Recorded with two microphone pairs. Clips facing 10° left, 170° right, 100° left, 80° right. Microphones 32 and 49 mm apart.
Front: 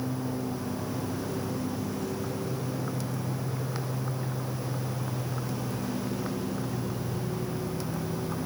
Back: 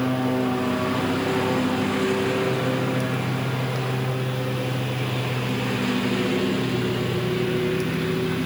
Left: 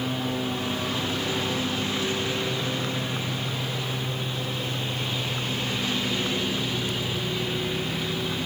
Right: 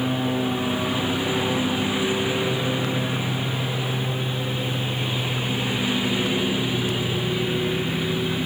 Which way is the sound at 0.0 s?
155° right.